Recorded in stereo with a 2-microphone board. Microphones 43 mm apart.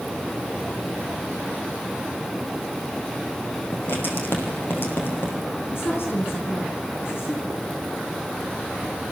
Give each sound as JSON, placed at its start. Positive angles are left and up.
{"t": 3.7, "sound": "writing", "side_deg": 50, "distance_m": 5.0}
{"t": 5.7, "sound": "a woman speaking", "side_deg": 65, "distance_m": 4.5}